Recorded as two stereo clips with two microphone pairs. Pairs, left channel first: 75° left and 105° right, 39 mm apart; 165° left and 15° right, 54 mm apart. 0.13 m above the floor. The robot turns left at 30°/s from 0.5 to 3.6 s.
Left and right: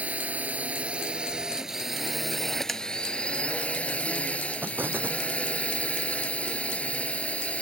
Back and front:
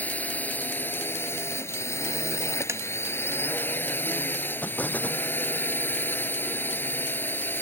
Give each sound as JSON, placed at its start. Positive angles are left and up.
{"t": 0.0, "sound": "a drone", "azimuth_deg": -145}
{"t": 2.7, "sound": "tapping", "azimuth_deg": -15}
{"t": 4.6, "sound": "an explosion", "azimuth_deg": -135}